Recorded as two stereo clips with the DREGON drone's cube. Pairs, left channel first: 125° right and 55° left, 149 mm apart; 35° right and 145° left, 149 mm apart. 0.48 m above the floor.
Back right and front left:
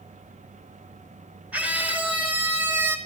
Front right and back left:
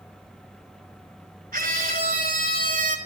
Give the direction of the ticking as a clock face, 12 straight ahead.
No ticking in this recording.